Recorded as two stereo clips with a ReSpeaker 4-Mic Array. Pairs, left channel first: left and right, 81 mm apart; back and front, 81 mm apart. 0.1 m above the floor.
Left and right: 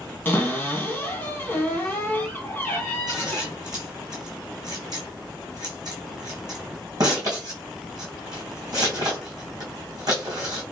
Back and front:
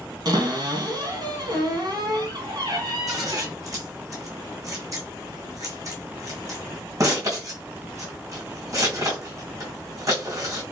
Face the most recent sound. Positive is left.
turn(degrees=-50)